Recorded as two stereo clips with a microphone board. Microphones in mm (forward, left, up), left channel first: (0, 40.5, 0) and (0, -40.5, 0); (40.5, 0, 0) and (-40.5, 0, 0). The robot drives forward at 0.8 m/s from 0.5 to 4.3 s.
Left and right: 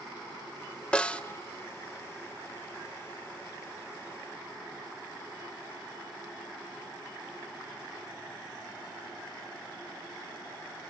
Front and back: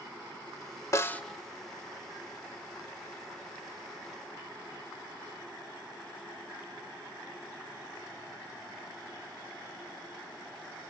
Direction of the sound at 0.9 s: 20° left.